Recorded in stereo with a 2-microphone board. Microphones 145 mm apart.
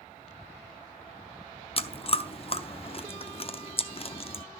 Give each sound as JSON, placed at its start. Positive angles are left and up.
{"t": 1.8, "sound": "chewing", "side_deg": 40, "distance_m": 0.6}